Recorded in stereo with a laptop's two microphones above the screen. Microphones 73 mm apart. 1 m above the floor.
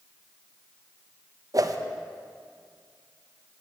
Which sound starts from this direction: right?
A whoosh, at 1.5 s.